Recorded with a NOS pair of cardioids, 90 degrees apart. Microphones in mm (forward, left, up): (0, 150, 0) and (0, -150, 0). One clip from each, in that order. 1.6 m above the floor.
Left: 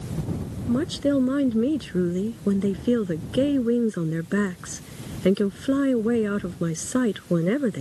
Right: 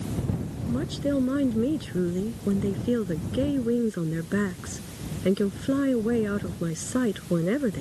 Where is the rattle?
No rattle in this recording.